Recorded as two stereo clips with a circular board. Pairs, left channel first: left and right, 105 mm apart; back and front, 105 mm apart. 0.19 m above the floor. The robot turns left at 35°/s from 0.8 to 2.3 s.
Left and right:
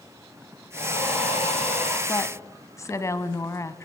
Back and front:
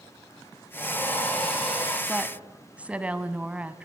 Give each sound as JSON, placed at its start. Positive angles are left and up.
{"t": 0.7, "sound": "breathing", "azimuth_deg": 120, "distance_m": 8.0}
{"t": 2.1, "sound": "a woman speaking", "azimuth_deg": 75, "distance_m": 1.2}